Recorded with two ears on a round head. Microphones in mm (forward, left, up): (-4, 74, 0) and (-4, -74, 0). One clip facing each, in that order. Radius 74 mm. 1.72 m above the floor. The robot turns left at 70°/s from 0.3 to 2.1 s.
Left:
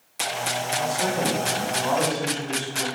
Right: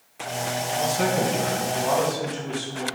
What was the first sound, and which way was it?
A man speaking, 70° right.